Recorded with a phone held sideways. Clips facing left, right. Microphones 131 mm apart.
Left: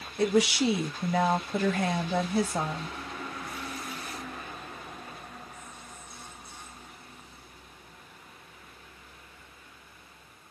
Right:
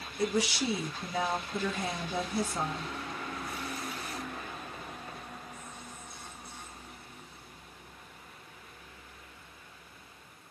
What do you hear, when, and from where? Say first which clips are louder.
0.2 s a woman speaking: left 6 dB; 75° left (ahead or behind), 0.8 m